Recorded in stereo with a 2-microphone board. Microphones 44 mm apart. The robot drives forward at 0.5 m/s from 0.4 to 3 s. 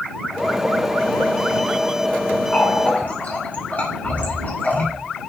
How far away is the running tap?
About 3 m.